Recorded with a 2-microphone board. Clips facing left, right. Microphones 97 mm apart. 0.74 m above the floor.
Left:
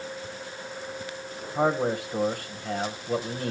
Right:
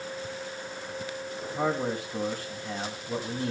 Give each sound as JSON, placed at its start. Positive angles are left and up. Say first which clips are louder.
{"t": 1.6, "sound": "a man speaking", "louder": "left 4 dB", "side_deg": 60, "distance_m": 3.0}